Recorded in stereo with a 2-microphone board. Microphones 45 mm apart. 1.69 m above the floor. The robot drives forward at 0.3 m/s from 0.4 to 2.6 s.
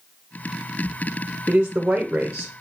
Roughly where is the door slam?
No door slam in this recording.